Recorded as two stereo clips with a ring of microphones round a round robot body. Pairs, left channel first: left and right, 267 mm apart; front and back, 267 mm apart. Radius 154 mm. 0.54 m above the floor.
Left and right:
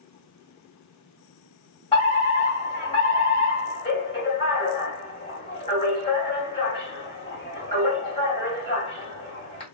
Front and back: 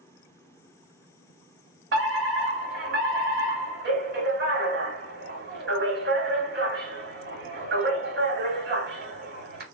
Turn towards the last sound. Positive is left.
turn(degrees=150)